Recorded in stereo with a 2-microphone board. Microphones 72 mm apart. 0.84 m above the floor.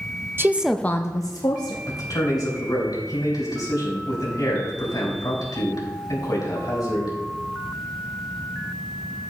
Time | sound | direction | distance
0.4 | a woman speaking | 35° right (ahead or behind) | 0.6 m
1.9 | a man speaking | 60° left (ahead or behind) | 4.5 m